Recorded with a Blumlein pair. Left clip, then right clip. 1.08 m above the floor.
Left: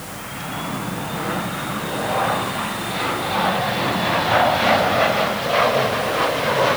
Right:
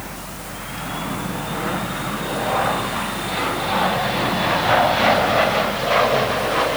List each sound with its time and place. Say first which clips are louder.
0.0 s a fan: left 2 dB; 65° right, 9.5 m